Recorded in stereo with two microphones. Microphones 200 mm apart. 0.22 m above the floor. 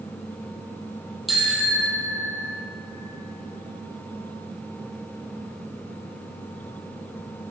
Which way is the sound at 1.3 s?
Centre (ahead or behind).